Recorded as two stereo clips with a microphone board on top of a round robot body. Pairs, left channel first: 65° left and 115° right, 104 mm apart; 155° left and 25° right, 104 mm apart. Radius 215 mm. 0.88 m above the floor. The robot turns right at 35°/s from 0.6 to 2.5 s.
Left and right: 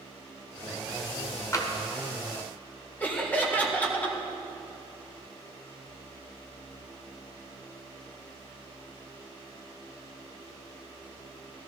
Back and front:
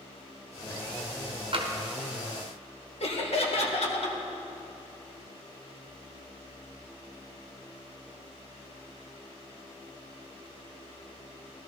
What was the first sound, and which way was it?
Tapping, 10° left.